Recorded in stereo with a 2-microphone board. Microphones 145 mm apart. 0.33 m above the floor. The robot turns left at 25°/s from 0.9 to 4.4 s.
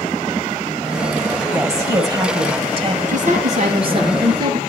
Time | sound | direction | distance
1.5 | a woman speaking | 20° right | 1.6 m
3.1 | a woman speaking | 120° right | 5 m